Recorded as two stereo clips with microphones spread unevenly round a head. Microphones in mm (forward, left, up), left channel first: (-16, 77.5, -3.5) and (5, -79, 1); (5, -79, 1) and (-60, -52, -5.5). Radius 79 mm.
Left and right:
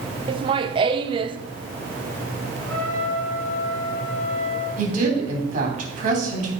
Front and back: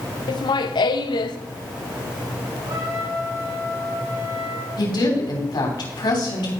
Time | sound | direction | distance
0.3 | laughter | 25° right | 0.8 m
2.6 | a trumpet | 175° left | 6 m
4.8 | a woman speaking | 35° right | 3 m